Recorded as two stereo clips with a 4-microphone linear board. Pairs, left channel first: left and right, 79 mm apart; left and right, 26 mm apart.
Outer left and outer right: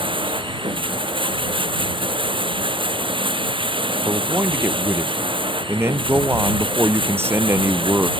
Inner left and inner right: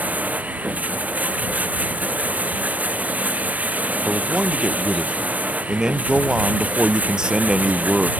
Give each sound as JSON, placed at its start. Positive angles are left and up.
{"t": 0.0, "sound": "running water", "side_deg": -85}
{"t": 4.0, "sound": "a man speaking", "side_deg": -30}